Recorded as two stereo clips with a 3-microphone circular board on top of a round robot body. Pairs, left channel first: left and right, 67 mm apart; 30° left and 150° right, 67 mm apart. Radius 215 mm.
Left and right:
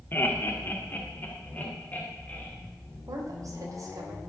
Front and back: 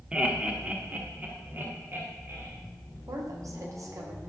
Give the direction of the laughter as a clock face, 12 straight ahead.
7 o'clock.